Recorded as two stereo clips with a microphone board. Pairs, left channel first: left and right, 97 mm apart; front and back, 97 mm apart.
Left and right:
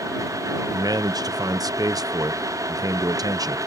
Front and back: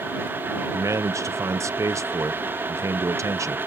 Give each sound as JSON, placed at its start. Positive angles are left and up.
{"t": 0.7, "sound": "a man speaking", "azimuth_deg": -130}